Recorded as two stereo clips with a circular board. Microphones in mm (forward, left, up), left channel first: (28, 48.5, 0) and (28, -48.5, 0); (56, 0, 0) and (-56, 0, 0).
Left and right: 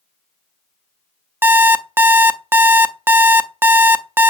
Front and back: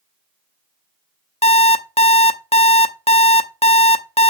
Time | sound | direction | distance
1.4 | an alarm clock | 20° right | 0.5 m